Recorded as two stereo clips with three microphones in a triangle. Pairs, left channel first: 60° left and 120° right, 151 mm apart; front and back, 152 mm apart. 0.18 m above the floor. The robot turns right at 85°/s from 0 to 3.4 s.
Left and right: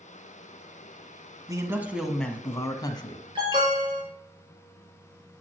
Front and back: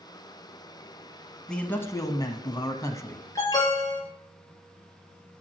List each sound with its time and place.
1.5 s a man speaking: 80° right, 1.1 m; by 3.2 s 70° left, 1.1 m
3.4 s an alarm: 65° right, 3.5 m